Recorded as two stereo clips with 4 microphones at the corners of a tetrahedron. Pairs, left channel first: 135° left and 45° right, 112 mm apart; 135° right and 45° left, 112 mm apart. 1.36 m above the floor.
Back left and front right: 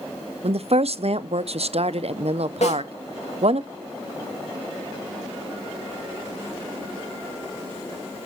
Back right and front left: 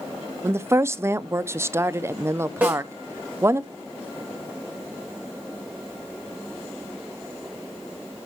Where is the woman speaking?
25° right, 0.6 m.